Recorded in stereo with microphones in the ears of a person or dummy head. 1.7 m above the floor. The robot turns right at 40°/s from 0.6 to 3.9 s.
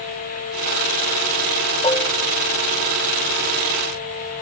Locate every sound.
1.8 s dishes clattering: 15° left (ahead or behind), 1.0 m; by 2.1 s 25° left (ahead or behind), 1.0 m